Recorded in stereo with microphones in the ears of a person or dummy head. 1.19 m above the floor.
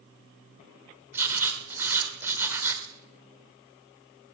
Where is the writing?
15° right (ahead or behind), 4 m.